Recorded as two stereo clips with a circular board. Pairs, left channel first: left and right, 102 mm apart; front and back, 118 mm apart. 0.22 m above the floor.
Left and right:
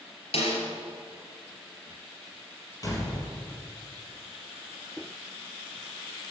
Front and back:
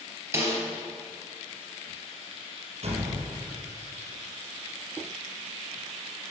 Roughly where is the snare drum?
Left.